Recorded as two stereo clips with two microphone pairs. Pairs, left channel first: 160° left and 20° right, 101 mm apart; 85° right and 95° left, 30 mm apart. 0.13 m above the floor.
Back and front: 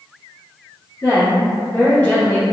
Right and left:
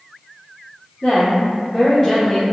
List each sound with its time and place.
1.0 s a woman speaking: 130° right, 1.8 m; by 2.4 s 155° right, 1.2 m